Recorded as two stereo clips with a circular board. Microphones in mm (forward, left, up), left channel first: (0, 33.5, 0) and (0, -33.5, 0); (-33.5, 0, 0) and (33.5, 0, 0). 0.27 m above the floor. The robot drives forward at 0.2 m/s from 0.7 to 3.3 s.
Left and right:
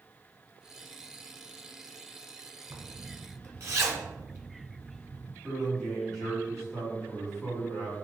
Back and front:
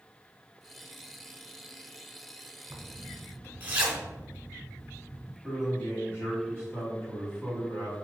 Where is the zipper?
50° right, 0.9 m; by 5.3 s 55° right, 0.9 m.